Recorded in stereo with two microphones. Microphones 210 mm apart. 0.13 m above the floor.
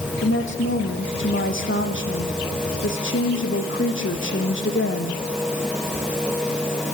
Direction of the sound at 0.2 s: 70° left (ahead or behind).